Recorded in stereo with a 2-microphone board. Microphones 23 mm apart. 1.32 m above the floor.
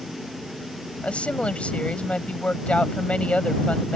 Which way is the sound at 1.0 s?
60° left (ahead or behind).